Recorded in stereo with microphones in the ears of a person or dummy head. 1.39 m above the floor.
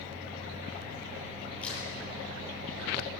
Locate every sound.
1.6 s a crack: 10° left (ahead or behind), 9.5 m